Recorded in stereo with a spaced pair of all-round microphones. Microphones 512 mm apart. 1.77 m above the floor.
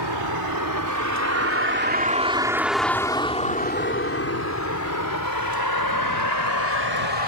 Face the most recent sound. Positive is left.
turn(degrees=55)  # may be behind; listen again after turning